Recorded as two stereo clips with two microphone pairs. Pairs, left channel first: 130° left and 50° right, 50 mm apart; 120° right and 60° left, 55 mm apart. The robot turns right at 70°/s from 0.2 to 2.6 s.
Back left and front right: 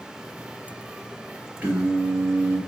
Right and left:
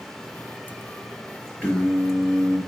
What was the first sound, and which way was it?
Singing, 80° right.